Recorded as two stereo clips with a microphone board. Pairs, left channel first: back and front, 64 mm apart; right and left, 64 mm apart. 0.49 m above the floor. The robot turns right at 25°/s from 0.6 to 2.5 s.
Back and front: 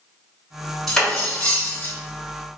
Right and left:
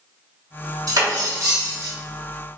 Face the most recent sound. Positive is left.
turn(degrees=135)